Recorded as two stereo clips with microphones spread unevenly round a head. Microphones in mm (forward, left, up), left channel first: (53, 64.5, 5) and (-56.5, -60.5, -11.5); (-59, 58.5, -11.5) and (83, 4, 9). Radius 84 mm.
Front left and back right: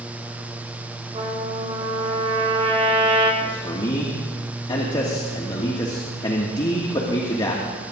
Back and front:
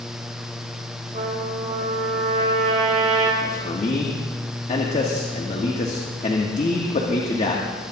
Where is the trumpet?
75° right, 4 m.